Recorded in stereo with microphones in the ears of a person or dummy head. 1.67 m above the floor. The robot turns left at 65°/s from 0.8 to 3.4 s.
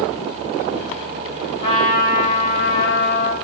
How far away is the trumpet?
About 4.5 m.